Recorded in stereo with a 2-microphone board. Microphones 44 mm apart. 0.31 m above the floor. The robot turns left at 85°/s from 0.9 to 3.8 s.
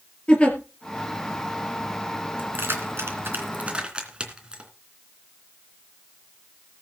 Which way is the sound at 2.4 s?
35° right (ahead or behind).